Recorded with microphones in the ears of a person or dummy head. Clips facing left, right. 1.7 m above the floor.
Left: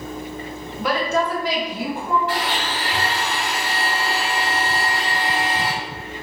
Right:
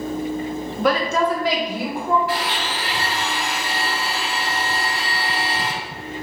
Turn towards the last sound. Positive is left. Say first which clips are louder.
# even
turn(degrees=-5)  # may be behind; listen again after turning